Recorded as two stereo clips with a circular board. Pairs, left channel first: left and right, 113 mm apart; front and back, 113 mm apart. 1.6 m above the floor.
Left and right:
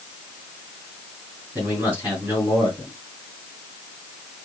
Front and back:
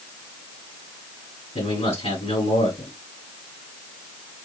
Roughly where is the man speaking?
Ahead.